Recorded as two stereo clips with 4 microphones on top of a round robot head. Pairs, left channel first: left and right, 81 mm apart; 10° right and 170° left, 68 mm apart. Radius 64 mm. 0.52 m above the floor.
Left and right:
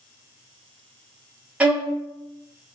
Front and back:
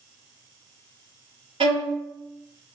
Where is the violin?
165° right, 0.5 m.